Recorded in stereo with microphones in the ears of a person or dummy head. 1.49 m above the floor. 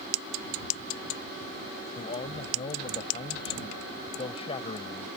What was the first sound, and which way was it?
A man speaking, 20° left (ahead or behind).